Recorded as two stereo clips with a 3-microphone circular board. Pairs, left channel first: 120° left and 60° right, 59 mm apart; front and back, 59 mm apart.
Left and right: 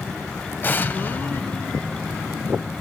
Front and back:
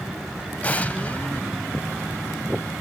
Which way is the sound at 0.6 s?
65° left.